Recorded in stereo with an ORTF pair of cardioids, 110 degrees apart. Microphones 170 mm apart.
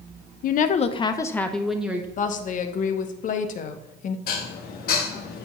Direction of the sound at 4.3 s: 60° left.